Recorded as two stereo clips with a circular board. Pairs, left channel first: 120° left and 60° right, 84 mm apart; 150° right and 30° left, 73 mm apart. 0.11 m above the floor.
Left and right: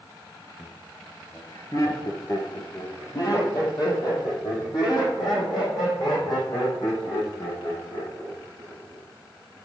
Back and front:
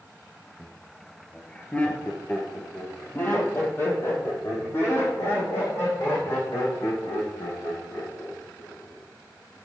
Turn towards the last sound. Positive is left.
turn(degrees=160)